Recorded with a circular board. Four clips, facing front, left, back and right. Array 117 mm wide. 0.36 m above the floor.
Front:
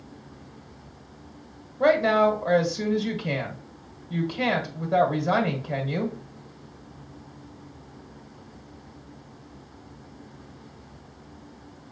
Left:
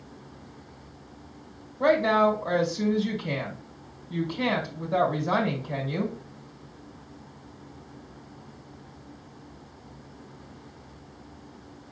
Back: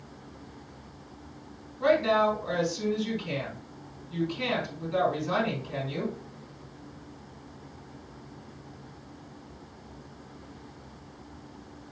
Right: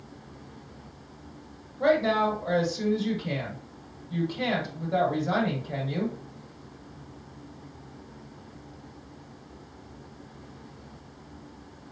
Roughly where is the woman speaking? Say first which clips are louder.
Left 2 dB, front 4 dB; ahead.